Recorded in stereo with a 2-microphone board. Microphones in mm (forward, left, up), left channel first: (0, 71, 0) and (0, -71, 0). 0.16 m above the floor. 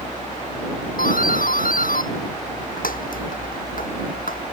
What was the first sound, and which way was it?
A doorbell, 80° left.